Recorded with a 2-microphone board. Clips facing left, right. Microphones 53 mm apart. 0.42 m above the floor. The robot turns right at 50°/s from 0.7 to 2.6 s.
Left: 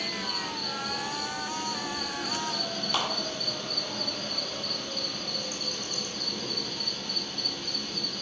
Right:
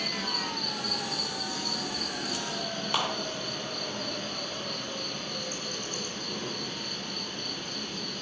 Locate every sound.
0.0 s an insect: 125° right, 0.9 m; by 8.2 s 30° right, 0.9 m
2.9 s a clap: 20° right (ahead or behind), 1.3 m